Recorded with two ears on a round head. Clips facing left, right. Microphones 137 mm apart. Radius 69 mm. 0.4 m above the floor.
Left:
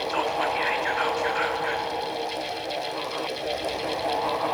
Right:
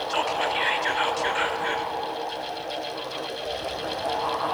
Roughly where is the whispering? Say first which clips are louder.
Even; right.